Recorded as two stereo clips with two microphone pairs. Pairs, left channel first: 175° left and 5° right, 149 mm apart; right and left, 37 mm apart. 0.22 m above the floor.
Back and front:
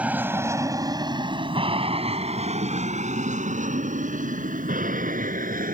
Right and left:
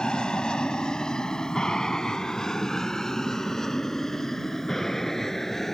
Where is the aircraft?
70° right; by 5.8 s 10° right.